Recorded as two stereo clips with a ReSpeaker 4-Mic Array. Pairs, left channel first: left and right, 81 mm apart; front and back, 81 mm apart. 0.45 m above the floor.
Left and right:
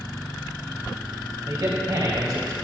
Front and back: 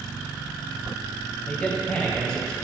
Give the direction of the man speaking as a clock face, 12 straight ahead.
2 o'clock.